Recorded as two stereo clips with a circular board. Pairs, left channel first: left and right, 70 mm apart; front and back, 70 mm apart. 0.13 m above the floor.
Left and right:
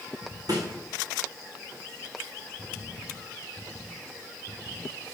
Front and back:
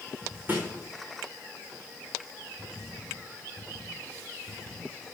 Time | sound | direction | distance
0.5 | a snare drum | 115° right | 3.5 m